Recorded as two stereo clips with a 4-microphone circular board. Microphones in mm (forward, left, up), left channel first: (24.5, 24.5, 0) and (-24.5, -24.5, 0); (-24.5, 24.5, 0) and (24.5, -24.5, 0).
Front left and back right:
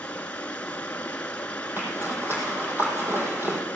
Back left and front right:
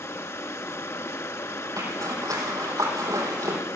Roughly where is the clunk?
No clunk in this recording.